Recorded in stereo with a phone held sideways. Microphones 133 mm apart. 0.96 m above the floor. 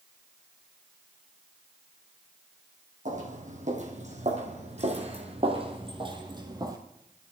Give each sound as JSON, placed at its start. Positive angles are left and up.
{"t": 3.0, "sound": "footsteps", "side_deg": -70, "distance_m": 3.0}